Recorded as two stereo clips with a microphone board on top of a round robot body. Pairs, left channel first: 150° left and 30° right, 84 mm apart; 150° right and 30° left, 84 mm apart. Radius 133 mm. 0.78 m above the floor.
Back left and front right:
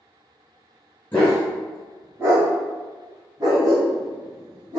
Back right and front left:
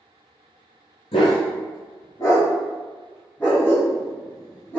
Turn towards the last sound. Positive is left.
turn(degrees=-75)